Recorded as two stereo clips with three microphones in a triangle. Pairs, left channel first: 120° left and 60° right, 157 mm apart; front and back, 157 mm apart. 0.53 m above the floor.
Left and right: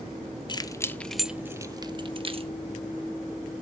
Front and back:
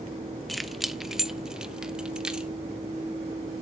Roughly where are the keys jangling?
Left.